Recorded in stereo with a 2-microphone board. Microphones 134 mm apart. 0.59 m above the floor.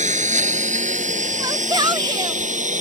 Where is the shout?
30° right (ahead or behind).